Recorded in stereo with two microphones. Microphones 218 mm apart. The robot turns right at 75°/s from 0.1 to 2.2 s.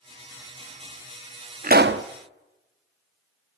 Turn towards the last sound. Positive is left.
turn(degrees=-95)